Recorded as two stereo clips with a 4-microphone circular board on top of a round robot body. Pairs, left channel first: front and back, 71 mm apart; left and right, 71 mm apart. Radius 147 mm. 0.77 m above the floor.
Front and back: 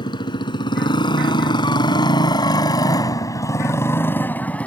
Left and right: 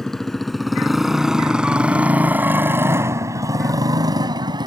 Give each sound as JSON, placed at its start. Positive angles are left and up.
{"t": 0.0, "sound": "a motorcycle", "azimuth_deg": 5}